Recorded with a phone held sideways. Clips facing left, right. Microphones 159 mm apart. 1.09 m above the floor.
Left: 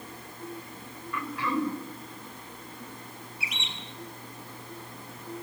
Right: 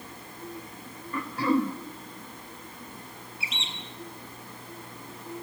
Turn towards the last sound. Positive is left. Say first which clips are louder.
# right 1 dB
turn(degrees=-25)  # may be behind; listen again after turning